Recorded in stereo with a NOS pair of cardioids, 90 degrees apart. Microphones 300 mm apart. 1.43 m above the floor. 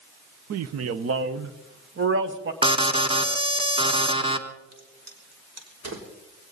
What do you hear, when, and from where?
0.5 s a man speaking: 60° right, 0.9 m; by 2.5 s 40° right, 1.9 m
2.6 s an alarm: 15° right, 1.5 m
4.7 s a crack: 60° right, 3.5 m